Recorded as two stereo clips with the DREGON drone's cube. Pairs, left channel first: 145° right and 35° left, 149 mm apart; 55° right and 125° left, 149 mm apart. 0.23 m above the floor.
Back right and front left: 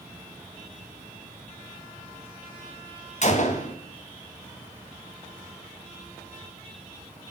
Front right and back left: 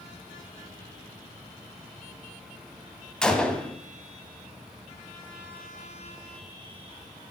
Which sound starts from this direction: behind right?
A gunshot, at 3.2 s.